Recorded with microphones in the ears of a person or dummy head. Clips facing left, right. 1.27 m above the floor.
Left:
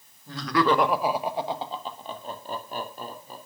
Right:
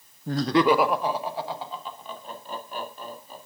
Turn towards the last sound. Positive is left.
turn(degrees=45)  # may be behind; listen again after turning